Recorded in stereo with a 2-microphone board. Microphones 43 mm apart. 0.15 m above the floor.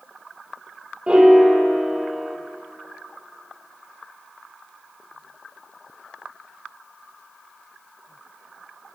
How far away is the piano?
About 2.5 m.